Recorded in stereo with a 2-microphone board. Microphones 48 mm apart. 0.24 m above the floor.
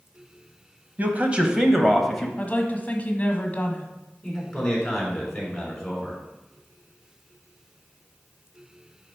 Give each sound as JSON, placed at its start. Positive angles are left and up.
{"t": 1.0, "sound": "a man speaking", "side_deg": -35, "distance_m": 1.2}
{"t": 2.4, "sound": "a woman speaking", "side_deg": 35, "distance_m": 1.3}
{"t": 4.2, "sound": "a man speaking", "side_deg": 5, "distance_m": 3.5}